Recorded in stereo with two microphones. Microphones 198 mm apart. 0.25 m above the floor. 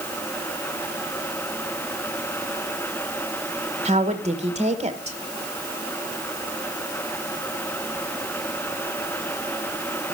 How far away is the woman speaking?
About 1.1 m.